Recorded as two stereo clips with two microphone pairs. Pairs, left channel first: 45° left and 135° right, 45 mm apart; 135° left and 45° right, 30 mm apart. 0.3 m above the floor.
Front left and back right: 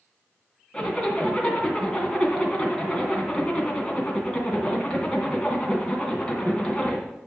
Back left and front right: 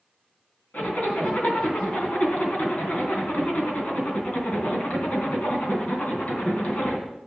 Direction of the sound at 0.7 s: 110° left.